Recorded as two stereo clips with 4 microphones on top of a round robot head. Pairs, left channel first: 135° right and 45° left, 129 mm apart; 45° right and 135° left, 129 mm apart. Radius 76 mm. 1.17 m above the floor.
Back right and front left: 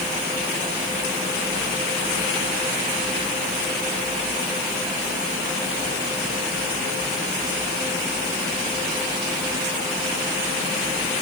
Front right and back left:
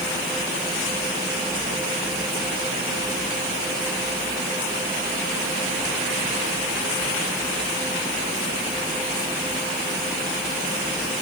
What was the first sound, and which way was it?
Only background noise.